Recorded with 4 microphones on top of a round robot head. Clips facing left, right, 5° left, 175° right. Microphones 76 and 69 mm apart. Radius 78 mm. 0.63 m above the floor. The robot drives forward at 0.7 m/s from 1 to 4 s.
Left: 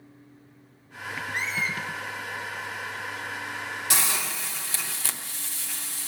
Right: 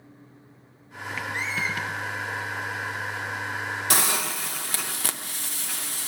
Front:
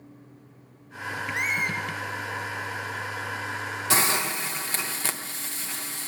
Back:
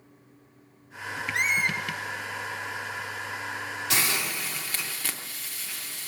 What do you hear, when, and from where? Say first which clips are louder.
1.3 s a squeak: even, back 2 dB; 165° left, 1.9 m; by 1.8 s 170° left, 2 m
3.9 s a hiss: right 3 dB, front 4 dB; 55° right, 0.7 m